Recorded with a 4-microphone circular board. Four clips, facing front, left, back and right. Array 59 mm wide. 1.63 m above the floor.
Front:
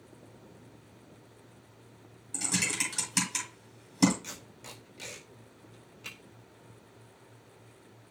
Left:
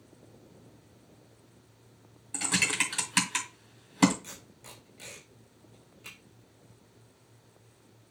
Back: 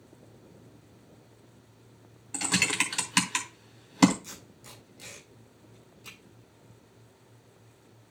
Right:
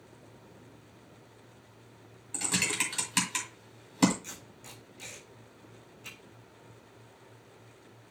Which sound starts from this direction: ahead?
Tape being pulled, at 4.2 s.